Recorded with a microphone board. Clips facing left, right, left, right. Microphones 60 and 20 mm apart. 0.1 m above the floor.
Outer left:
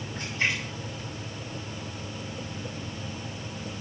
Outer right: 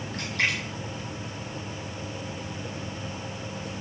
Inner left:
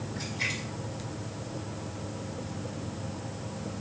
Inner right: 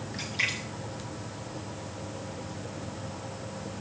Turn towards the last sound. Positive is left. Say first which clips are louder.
# outer right 1 dB, inner right 3 dB
turn(degrees=-85)